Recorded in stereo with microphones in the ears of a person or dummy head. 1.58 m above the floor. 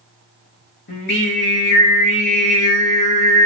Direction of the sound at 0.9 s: 55° left (ahead or behind).